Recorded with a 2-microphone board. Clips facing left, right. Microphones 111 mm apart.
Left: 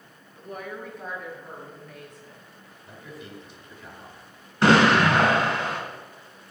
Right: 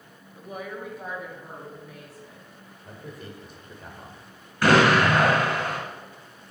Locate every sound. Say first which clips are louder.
0.4 s a woman speaking: right 1 dB; 5° right (ahead or behind), 1.4 m
2.9 s a man speaking: right 1 dB; 45° right (ahead or behind), 1.9 m
4.6 s an explosion: left 1 dB; 25° left (ahead or behind), 2.5 m